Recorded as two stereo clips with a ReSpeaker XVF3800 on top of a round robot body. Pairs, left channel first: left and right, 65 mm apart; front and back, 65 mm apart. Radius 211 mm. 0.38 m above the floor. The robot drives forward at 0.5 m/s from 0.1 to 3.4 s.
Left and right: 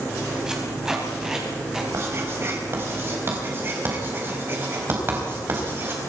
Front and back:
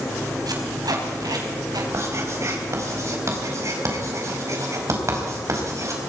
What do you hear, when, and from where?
0.5 s tape being pulled: 170° right, 4.5 m
1.9 s writing: 140° right, 4.5 m; by 6.0 s 145° right, 5 m